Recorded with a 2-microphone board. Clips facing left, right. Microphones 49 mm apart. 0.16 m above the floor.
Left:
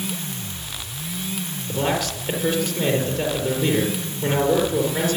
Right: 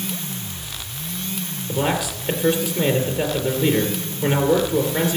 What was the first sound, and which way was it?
A man speaking, 15° right (ahead or behind).